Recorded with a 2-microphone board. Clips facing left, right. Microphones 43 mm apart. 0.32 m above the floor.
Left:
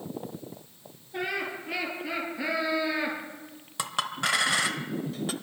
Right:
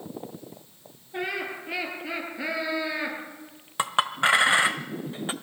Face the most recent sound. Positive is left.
turn(degrees=-30)  # may be behind; listen again after turning